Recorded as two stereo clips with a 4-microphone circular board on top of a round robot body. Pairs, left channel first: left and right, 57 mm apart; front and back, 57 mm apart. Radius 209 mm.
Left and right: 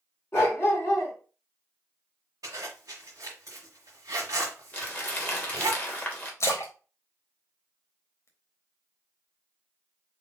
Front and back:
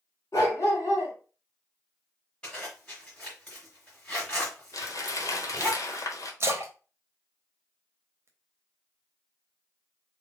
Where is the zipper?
75° right, 0.9 m.